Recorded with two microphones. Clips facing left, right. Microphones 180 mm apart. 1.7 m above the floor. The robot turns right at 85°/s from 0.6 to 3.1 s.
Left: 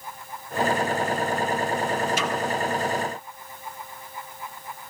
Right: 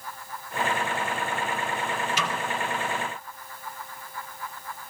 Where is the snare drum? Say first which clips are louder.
Left 4 dB; 50° left (ahead or behind), 2.5 m; by 2.4 s 35° left (ahead or behind), 2.5 m.